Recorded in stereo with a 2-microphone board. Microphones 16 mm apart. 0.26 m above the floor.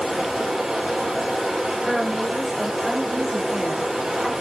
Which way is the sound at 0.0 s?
60° right (ahead or behind).